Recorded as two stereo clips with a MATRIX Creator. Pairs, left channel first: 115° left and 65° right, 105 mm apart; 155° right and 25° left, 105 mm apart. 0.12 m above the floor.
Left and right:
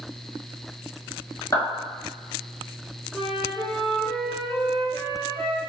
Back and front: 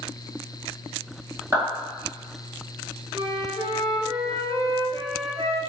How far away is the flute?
About 1.5 m.